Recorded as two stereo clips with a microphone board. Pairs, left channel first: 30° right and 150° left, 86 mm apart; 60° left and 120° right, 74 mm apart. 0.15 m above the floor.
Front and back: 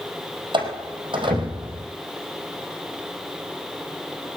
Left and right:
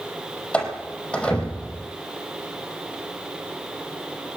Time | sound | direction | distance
0.5 | a door slam | 135° left | 4.5 m